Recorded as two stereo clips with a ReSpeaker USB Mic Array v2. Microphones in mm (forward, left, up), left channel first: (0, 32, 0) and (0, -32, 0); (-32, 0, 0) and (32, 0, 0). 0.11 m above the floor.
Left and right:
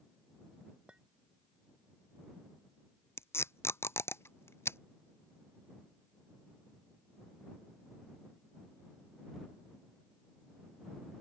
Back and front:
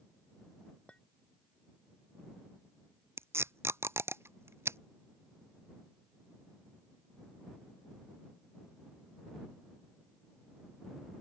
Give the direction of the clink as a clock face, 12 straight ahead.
5 o'clock.